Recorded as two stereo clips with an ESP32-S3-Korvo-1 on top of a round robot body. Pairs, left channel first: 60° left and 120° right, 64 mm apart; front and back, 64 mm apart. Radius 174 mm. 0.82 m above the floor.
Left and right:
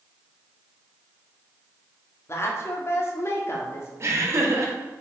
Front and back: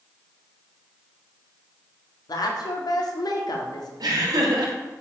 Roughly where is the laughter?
Behind.